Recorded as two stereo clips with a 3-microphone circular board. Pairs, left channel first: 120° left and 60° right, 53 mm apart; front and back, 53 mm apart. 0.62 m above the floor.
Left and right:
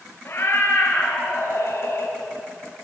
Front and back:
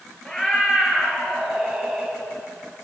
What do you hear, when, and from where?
0.2 s a cat meowing: 75° left, 6 m; by 2.1 s 90° left, 6 m